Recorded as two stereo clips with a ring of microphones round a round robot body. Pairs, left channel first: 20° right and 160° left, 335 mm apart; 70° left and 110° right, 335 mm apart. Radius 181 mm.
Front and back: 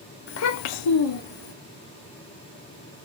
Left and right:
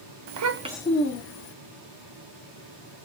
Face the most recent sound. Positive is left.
turn(degrees=30)